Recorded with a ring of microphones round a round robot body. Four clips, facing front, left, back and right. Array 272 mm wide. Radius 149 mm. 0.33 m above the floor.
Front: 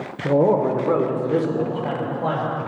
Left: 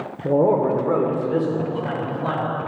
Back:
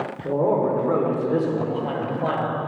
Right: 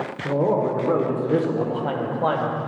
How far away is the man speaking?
About 0.9 m.